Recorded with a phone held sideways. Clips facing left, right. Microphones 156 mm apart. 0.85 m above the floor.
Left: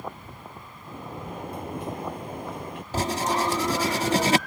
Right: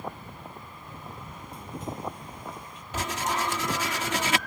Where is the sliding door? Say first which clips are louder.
Left 8 dB; 75° left (ahead or behind).